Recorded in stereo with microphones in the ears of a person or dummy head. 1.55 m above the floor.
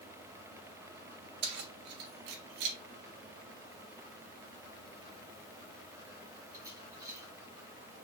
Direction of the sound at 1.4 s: 55° right (ahead or behind).